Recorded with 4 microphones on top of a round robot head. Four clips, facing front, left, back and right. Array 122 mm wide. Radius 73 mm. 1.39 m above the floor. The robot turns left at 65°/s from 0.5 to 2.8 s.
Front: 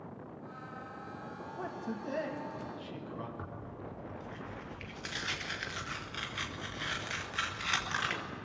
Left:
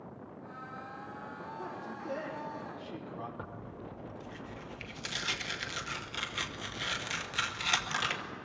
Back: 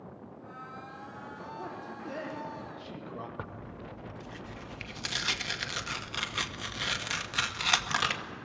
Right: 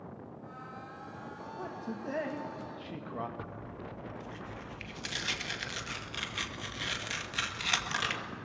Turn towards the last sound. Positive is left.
turn(degrees=180)